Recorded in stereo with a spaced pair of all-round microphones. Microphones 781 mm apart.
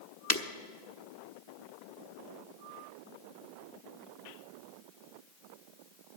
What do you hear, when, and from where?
0.3 s breaking glass: 20° left (ahead or behind), 1.1 m